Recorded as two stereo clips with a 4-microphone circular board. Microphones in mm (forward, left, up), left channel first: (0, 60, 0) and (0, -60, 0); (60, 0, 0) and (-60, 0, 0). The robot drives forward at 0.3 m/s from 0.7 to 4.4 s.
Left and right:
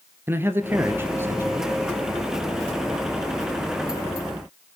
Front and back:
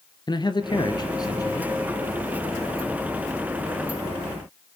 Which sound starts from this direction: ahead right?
A man speaking, at 0.3 s.